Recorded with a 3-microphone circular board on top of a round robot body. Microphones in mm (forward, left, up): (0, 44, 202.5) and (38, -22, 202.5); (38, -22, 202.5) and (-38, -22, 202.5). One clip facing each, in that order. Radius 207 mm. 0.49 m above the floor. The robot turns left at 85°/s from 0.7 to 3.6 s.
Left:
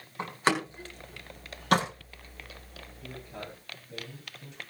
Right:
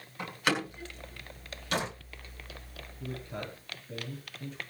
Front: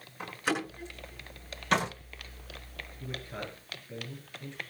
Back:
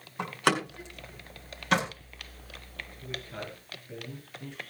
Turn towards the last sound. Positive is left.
turn(degrees=-105)